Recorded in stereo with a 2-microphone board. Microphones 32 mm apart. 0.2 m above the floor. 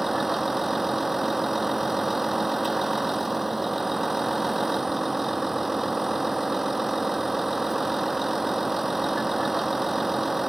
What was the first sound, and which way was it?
A vehicle, 5° right (ahead or behind).